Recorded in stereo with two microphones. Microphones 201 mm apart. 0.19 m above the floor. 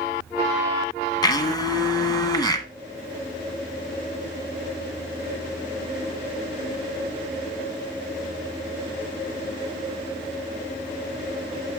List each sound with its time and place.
1.2 s a blender: 20° left (ahead or behind), 1.4 m